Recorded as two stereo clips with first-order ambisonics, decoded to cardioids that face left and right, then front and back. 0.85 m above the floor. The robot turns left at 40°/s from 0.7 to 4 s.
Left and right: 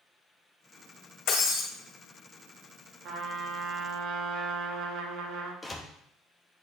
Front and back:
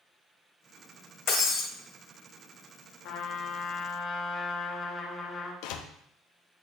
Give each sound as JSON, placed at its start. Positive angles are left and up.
{"t": 1.3, "sound": "breaking glass", "azimuth_deg": 55, "distance_m": 2.0}
{"t": 3.0, "sound": "a trumpet", "azimuth_deg": -35, "distance_m": 1.1}
{"t": 5.6, "sound": "a door slam", "azimuth_deg": 10, "distance_m": 0.7}